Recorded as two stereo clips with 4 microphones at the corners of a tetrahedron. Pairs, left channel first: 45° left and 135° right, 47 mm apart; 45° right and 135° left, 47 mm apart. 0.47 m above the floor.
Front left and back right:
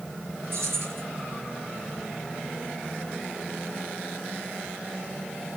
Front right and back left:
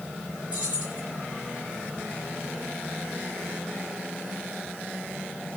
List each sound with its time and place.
0.5 s keys jangling: 165° right, 4.5 m